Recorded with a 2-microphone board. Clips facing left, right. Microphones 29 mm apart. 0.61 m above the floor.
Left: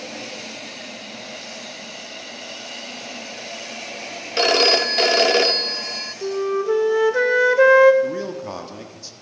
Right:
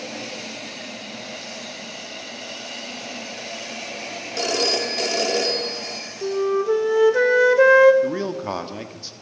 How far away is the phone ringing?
About 0.8 m.